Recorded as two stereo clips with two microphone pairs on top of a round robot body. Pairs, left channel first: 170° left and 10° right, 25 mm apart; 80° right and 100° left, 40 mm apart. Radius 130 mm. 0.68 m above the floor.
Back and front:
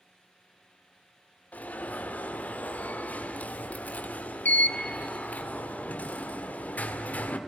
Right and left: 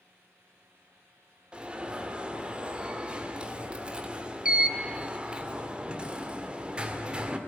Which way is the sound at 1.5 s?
170° left.